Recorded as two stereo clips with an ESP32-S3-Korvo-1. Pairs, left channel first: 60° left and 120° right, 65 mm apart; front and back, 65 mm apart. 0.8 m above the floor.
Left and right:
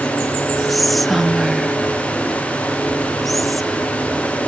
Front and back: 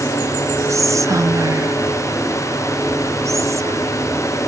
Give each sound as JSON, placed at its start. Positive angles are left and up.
{"t": 0.7, "sound": "whispering", "azimuth_deg": 150, "distance_m": 1.0}